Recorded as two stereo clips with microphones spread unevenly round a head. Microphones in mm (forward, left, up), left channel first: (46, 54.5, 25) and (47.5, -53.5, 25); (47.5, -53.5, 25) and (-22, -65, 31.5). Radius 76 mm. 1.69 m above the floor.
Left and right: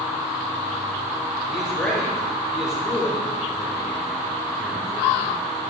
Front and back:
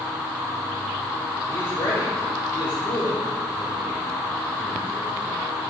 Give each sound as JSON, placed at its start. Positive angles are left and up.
{"t": 1.5, "sound": "a man speaking", "azimuth_deg": 35, "distance_m": 1.5}